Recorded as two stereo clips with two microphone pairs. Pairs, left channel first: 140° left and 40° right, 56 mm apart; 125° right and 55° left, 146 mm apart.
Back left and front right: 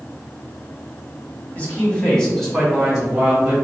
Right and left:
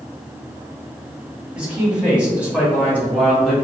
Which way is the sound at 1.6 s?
135° left.